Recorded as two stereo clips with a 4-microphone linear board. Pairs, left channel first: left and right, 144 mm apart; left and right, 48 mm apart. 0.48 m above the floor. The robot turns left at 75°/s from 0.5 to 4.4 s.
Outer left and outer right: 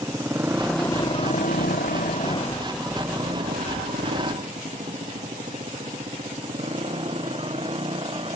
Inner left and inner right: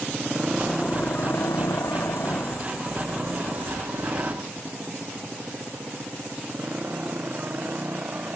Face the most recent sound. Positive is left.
turn(degrees=-40)  # may be behind; listen again after turning